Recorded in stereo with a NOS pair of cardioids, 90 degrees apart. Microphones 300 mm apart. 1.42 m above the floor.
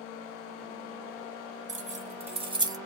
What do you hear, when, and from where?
1.7 s keys jangling: 25° right, 1.2 m; by 2.8 s 15° right, 0.6 m